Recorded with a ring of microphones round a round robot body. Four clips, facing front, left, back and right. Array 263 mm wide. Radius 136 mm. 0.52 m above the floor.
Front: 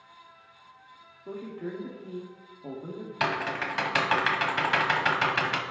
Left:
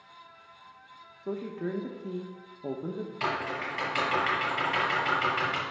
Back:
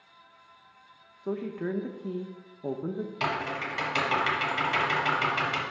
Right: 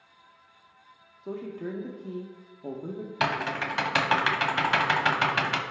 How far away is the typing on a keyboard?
About 1.0 m.